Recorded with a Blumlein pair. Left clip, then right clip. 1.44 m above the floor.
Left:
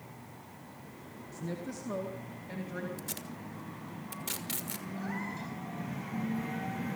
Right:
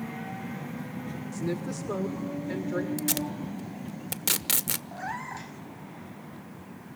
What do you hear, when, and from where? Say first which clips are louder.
1.3 s a woman speaking: right 7 dB; 65° right, 1.6 m; by 2.9 s 75° right, 2.5 m
3.0 s tape being pulled: right 11 dB; 40° right, 0.9 m
4.9 s a cat meowing: right 1 dB; 70° right, 5 m